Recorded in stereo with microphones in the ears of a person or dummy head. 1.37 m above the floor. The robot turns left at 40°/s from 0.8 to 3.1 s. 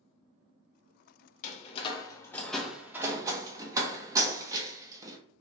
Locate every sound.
1.4 s a door slam: 40° left (ahead or behind), 0.7 m; by 5.2 s 20° right (ahead or behind), 0.7 m